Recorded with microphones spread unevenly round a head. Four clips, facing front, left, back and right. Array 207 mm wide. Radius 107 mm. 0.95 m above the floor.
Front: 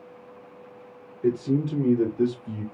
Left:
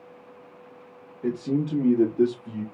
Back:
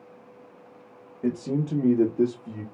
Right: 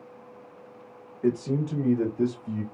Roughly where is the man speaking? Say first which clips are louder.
Even, front 3 dB; behind.